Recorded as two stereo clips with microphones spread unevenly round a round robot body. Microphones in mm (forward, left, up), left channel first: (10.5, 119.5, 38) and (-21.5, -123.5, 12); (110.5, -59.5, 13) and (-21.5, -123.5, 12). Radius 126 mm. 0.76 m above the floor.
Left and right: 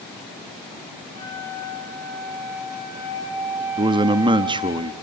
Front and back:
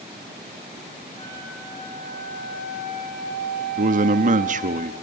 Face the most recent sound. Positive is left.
turn(degrees=-160)